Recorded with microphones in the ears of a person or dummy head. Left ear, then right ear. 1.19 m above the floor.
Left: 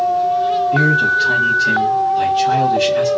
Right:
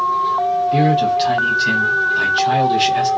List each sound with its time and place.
0.7 s a man speaking: 35° right (ahead or behind), 0.8 m